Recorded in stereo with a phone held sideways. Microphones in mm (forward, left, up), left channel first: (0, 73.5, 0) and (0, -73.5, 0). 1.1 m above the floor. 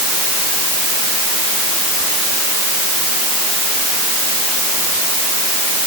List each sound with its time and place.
Only background noise.